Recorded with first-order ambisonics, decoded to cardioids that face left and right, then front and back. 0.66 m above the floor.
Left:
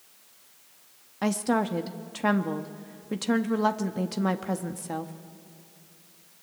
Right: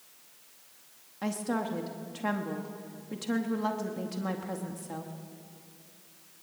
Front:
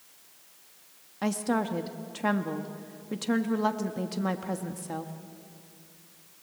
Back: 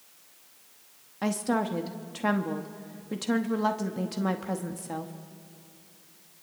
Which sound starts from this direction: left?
A woman speaking, at 1.2 s.